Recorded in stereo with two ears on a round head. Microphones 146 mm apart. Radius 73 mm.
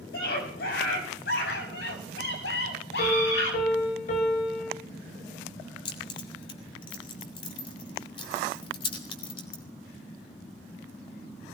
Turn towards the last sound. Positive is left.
turn(degrees=30)  # may be behind; listen again after turning